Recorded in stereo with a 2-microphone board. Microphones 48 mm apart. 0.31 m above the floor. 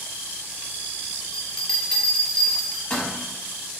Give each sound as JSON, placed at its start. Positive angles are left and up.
{"t": 1.3, "sound": "a bell", "side_deg": 15, "distance_m": 0.7}